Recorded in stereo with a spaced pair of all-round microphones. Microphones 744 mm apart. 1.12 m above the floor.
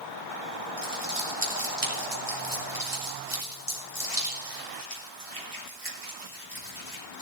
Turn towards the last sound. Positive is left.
turn(degrees=-35)  # may be behind; listen again after turning